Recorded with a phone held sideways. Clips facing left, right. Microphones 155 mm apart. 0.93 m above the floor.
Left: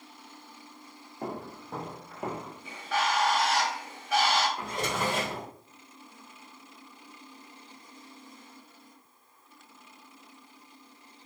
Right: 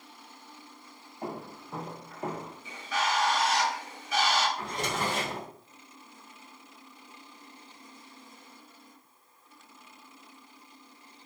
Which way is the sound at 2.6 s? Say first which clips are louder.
Left 2 dB; 65° left (ahead or behind).